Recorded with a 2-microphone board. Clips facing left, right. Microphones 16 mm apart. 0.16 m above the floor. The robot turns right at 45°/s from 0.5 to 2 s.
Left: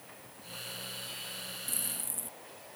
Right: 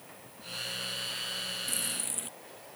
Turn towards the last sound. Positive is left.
turn(degrees=-40)  # may be behind; listen again after turning